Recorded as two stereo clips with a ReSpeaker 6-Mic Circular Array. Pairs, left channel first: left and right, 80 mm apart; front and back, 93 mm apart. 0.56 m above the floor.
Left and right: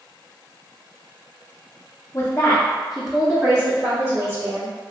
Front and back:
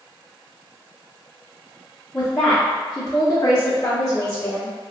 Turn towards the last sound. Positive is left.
turn(degrees=-60)